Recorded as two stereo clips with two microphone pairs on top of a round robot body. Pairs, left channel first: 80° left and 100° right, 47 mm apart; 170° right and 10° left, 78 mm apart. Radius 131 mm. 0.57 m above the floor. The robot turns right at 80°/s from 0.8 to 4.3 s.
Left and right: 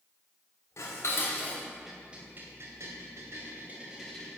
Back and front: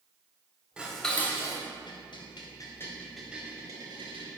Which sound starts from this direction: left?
Dishes clattering, at 0.8 s.